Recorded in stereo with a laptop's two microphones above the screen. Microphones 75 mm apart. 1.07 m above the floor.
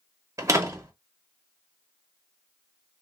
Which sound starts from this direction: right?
A door slam, at 0.4 s.